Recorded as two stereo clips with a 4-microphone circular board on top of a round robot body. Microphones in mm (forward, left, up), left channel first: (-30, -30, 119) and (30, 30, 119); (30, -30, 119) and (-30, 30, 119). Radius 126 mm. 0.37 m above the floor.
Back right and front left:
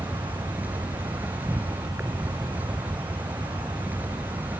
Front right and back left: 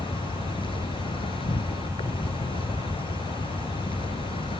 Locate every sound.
0.0 s an insect: 25° right